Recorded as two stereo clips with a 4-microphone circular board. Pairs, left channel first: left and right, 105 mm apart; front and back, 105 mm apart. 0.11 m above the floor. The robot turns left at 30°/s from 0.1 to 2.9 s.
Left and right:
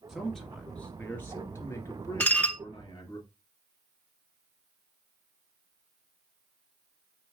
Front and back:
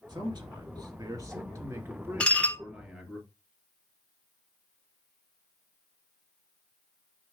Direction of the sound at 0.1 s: Straight behind.